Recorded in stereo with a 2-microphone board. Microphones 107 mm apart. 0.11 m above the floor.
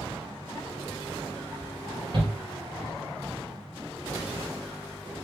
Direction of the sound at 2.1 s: 50° right (ahead or behind).